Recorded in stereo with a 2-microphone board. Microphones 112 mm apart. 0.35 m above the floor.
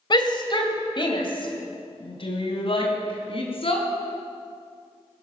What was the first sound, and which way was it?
A shout, 45° left (ahead or behind).